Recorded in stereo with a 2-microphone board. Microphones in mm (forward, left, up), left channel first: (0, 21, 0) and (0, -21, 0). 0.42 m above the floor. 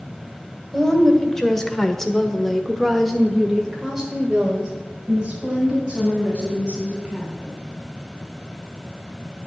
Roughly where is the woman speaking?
Centre.